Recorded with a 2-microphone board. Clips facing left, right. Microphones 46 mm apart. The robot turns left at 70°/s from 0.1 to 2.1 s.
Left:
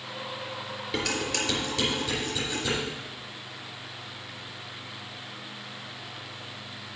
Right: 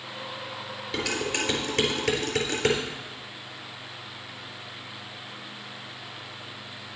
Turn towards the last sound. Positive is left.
turn(degrees=-70)  # may be behind; listen again after turning